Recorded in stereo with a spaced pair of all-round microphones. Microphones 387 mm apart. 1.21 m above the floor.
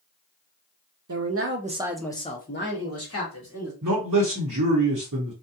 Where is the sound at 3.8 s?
45° right (ahead or behind), 0.8 m.